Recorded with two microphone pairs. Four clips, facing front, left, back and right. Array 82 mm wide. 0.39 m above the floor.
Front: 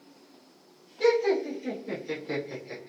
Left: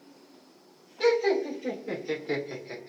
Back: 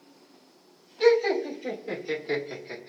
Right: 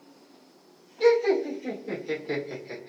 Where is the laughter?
115° left, 1.4 m; by 2.9 s 105° right, 1.1 m.